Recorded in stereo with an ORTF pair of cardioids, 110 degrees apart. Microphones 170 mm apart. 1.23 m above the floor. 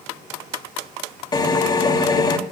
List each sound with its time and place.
1.3 s a drill: 25° left, 3 m